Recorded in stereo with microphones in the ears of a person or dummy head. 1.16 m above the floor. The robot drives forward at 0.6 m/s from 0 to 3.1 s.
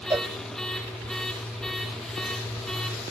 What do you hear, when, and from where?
0.1 s a cowbell: 10° right (ahead or behind), 0.6 m